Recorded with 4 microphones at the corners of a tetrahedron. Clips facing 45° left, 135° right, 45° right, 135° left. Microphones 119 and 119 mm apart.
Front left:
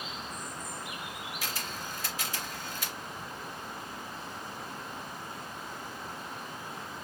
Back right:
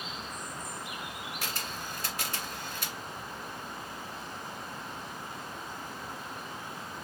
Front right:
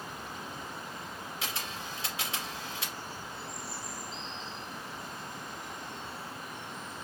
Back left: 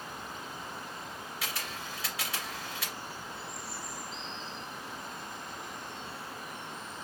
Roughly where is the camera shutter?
Right.